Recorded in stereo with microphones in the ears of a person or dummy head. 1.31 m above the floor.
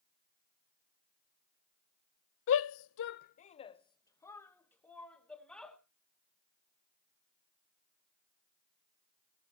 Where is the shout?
65° left (ahead or behind), 0.6 m; by 5.8 s 5° left (ahead or behind), 2 m.